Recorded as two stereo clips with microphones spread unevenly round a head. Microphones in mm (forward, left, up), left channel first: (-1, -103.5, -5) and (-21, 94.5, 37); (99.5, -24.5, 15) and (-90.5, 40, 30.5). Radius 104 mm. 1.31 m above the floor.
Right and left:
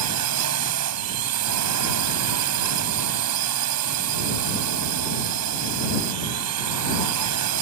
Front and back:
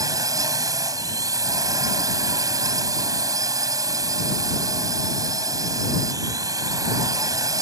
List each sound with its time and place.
0.0 s a drone: 85° left